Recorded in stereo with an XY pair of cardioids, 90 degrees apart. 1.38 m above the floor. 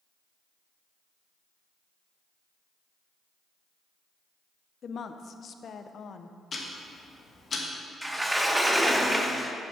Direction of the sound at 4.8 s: 55° left.